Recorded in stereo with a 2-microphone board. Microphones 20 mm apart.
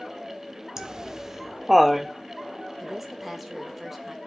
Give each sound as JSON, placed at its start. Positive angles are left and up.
{"t": 0.8, "sound": "laughter", "side_deg": -30, "distance_m": 0.6}
{"t": 2.8, "sound": "a woman speaking", "side_deg": -5, "distance_m": 1.8}